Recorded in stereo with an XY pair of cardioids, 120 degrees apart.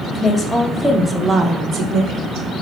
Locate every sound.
0.1 s a woman speaking: 30° left, 0.9 m; by 2.5 s 75° right, 0.9 m